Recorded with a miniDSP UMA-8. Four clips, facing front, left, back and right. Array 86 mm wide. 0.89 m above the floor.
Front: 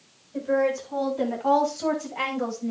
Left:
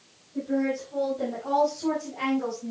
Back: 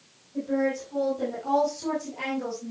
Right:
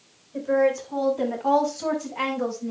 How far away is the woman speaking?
About 6 m.